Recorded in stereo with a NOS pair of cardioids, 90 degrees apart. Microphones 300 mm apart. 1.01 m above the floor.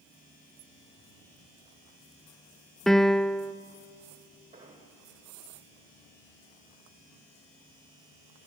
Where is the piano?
Straight ahead, 0.7 m.